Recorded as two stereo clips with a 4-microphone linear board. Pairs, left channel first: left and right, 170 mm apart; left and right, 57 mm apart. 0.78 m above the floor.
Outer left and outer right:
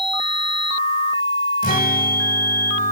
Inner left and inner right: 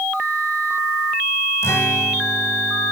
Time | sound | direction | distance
1.6 | a guitar | 60° left (ahead or behind) | 1.7 m